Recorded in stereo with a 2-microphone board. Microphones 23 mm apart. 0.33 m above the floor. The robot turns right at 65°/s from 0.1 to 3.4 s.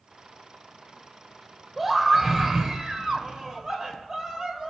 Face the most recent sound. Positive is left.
turn(degrees=-20)  # may be behind; listen again after turning